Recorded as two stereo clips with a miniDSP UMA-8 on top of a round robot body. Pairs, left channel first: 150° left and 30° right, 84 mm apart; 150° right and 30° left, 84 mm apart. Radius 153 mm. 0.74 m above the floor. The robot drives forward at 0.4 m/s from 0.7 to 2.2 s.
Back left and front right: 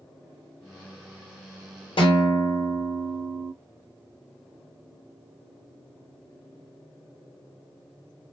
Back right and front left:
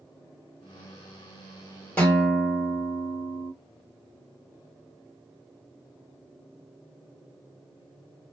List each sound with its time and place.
2.0 s a guitar: 135° left, 2.5 m